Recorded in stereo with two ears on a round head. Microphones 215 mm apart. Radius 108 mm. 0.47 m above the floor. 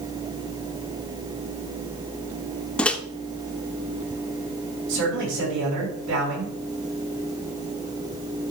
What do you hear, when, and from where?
2.8 s a microwave: 5° left (ahead or behind), 0.6 m
4.9 s a man speaking: 75° right (ahead or behind), 5.5 m